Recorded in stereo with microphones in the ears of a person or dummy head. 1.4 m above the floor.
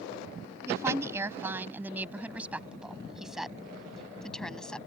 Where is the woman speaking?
20° right (ahead or behind); by 4.9 s 5° left (ahead or behind).